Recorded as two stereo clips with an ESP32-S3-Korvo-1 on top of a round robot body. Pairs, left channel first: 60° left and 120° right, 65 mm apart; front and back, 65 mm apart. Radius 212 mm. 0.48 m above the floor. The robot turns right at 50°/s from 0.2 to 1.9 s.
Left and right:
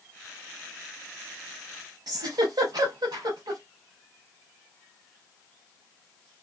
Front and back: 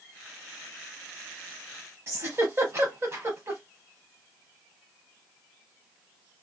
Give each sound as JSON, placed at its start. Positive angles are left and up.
{"t": 2.1, "sound": "a giggle", "azimuth_deg": -130, "distance_m": 0.8}